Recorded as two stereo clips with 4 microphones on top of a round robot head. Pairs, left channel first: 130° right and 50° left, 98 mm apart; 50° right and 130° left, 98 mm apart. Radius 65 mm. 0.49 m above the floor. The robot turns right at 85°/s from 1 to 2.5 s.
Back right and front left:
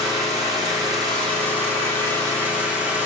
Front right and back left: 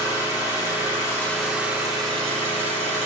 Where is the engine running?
Straight ahead, 2.5 m; by 3.1 s 125° left, 2.5 m.